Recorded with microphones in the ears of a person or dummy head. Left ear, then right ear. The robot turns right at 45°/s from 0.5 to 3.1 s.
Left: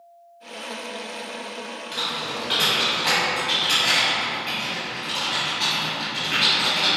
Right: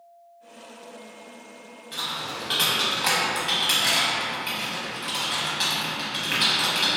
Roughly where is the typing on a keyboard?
Centre.